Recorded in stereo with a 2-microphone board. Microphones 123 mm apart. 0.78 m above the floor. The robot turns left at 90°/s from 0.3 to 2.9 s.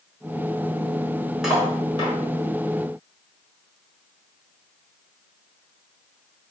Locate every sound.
1.4 s cutlery clinking: 5° right (ahead or behind), 1.5 m; by 2.1 s 60° left (ahead or behind), 1.5 m